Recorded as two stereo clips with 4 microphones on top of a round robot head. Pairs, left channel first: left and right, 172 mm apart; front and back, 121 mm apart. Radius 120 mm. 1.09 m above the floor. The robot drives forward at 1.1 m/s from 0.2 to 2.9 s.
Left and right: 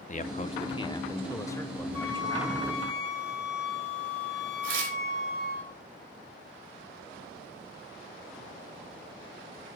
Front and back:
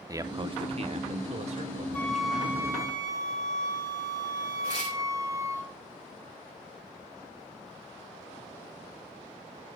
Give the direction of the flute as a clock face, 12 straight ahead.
9 o'clock.